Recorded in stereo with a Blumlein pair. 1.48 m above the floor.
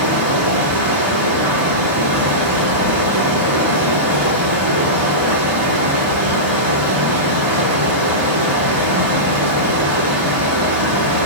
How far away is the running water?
About 1.8 m.